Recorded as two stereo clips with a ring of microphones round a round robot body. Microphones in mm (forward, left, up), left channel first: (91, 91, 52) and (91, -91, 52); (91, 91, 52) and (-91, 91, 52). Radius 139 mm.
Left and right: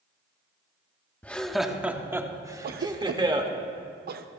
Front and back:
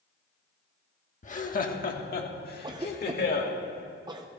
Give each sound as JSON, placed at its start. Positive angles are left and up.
{"t": 1.2, "sound": "laughter", "azimuth_deg": 10, "distance_m": 1.2}
{"t": 2.6, "sound": "a cough", "azimuth_deg": -115, "distance_m": 0.6}